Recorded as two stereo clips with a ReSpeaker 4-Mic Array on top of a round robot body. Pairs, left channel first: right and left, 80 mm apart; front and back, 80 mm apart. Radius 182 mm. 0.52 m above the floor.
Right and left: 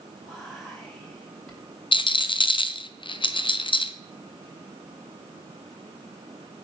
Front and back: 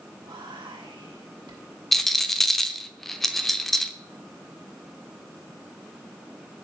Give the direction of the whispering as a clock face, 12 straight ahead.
6 o'clock.